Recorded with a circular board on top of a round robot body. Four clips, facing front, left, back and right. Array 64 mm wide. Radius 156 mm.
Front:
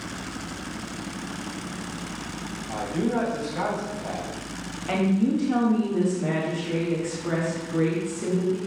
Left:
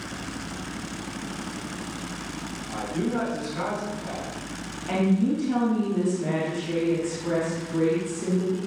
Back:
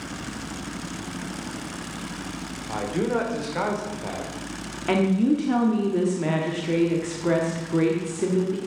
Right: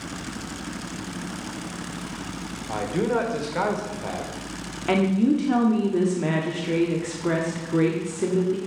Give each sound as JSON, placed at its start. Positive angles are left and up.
{"t": 2.7, "sound": "a man speaking", "azimuth_deg": -120, "distance_m": 2.5}
{"t": 4.9, "sound": "a woman speaking", "azimuth_deg": -130, "distance_m": 1.8}